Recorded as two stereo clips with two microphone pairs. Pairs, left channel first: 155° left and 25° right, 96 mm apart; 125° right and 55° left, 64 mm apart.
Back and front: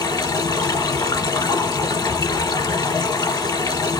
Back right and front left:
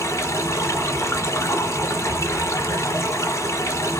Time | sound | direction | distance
0.0 | running water | 165° right | 1.4 m